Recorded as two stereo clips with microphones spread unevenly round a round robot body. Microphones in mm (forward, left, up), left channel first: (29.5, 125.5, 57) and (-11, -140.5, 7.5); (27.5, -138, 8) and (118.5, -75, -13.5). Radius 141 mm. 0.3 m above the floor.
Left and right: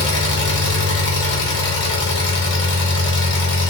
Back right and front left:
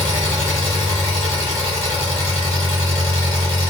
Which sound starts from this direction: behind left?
An engine running, at 0.0 s.